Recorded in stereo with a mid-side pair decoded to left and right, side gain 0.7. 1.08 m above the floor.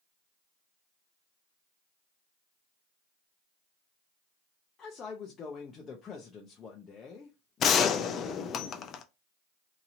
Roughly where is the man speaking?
Ahead left.